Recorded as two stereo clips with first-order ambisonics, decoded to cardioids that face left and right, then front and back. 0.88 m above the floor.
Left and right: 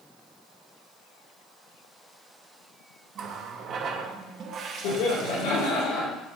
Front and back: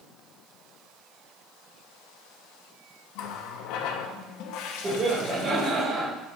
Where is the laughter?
105° left, 1.9 m.